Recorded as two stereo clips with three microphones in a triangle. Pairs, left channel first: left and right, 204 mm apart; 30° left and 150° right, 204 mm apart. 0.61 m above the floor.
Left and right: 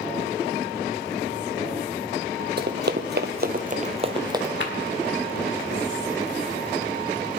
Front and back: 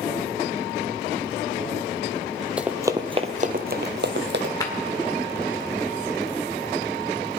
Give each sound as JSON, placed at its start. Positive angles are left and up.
{"t": 2.6, "sound": "running footsteps", "azimuth_deg": -65, "distance_m": 1.2}
{"t": 4.6, "sound": "a clap", "azimuth_deg": 100, "distance_m": 1.6}